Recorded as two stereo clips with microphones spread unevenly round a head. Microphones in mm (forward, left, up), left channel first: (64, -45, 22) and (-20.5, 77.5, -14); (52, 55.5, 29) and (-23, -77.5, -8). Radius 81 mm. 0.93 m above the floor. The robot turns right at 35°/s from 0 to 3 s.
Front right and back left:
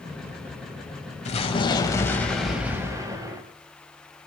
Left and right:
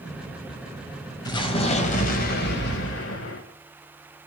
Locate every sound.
1.2 s an explosion: 5° right, 4.5 m; by 3.4 s 55° left, 4.5 m